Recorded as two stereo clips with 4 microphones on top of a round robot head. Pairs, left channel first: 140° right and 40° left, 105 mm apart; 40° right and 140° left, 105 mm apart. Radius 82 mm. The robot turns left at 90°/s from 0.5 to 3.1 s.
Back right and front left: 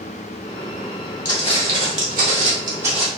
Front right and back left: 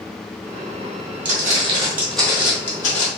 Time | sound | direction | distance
1.2 | footsteps | 150° left | 1.3 m